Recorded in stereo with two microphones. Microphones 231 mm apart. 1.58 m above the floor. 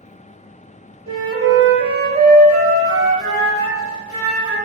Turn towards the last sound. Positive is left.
turn(degrees=-85)